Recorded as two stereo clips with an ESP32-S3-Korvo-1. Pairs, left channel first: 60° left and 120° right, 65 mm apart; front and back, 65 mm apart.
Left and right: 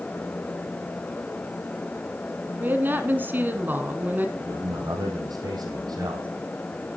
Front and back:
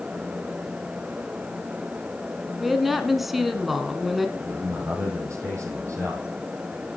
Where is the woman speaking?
95° right, 1.5 m.